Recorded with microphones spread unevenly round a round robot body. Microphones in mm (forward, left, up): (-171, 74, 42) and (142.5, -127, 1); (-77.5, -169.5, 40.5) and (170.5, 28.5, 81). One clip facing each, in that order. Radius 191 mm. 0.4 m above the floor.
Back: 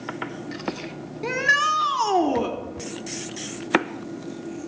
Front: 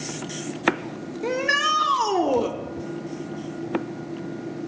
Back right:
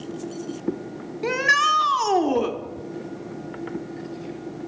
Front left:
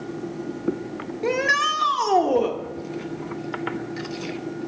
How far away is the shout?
About 0.8 m.